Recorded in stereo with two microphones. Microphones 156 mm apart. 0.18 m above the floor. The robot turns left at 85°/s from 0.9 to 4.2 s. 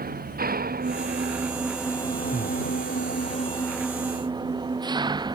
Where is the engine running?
105° right; by 5.4 s 30° right.